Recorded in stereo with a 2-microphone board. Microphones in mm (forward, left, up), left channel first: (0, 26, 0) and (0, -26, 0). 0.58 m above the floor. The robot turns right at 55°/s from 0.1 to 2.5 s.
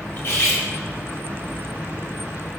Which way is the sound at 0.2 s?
40° left (ahead or behind).